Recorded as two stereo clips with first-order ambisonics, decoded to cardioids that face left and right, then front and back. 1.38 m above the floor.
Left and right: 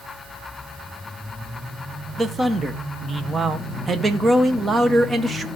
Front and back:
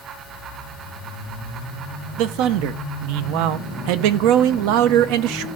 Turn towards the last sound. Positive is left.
turn(degrees=-160)